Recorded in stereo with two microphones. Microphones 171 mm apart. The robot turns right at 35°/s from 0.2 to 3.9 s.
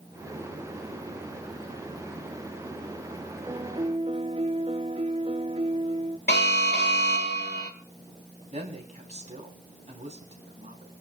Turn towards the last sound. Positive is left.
turn(degrees=-45)  # may be behind; listen again after turning